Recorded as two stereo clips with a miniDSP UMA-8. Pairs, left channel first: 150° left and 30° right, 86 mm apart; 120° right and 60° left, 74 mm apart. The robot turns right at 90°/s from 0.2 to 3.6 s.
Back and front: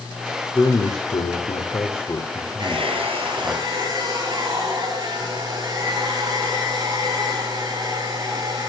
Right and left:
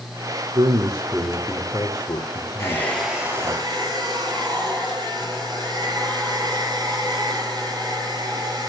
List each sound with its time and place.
0.6 s a man speaking: 80° left, 2.5 m; by 3.6 s 5° right, 2.5 m
2.6 s a hair dryer: 70° right, 6 m; by 8.7 s 20° left, 6 m